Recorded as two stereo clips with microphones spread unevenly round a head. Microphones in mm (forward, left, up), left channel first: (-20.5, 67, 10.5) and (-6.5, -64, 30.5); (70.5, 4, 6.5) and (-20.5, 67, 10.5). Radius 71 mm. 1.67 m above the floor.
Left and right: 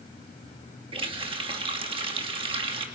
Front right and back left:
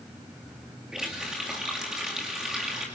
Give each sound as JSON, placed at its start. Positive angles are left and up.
{"t": 0.9, "sound": "a running tap", "azimuth_deg": -130, "distance_m": 2.0}